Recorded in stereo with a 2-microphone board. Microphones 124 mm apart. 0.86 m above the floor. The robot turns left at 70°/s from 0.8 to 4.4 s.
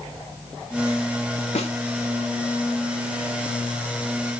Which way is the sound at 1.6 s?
60° left (ahead or behind).